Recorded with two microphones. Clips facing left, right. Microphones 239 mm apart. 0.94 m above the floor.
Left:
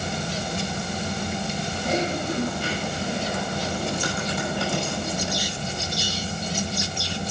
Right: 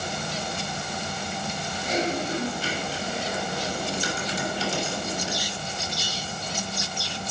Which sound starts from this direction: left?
Typing on a keyboard, at 1.7 s.